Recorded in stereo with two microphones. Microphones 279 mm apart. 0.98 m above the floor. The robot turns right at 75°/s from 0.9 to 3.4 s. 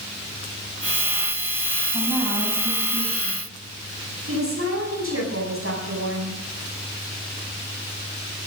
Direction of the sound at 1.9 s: 145° left.